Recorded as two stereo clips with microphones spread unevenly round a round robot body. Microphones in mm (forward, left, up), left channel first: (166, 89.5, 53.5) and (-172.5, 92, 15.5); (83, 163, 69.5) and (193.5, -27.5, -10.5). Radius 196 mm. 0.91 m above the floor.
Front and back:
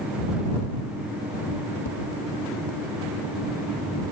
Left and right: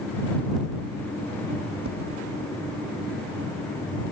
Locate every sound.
1.9 s tapping: 50° right